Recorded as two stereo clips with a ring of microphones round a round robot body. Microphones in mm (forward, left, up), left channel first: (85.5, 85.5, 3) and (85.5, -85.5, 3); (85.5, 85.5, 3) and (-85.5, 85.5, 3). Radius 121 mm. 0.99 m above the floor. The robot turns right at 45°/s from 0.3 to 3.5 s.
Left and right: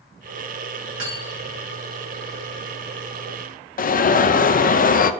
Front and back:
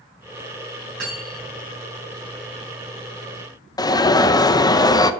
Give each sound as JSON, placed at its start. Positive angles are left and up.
{"t": 1.0, "sound": "cutlery clinking", "azimuth_deg": -125, "distance_m": 4.5}
{"t": 3.8, "sound": "an alarm", "azimuth_deg": 65, "distance_m": 0.7}